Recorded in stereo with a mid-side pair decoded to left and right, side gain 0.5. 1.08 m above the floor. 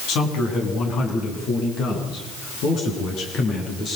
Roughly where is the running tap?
No running tap in this recording.